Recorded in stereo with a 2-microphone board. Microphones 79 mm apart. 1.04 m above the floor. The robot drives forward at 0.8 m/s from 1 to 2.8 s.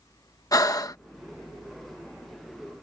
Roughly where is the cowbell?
No cowbell in this recording.